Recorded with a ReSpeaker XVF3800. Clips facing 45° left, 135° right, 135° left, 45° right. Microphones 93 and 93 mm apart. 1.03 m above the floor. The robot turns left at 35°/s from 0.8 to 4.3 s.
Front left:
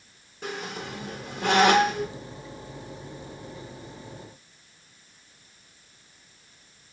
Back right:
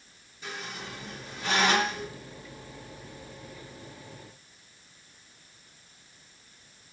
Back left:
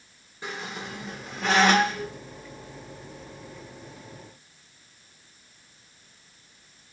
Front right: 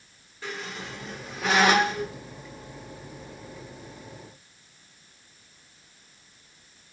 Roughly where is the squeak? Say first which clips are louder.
Front left 5 dB, back left 1 dB; ahead left.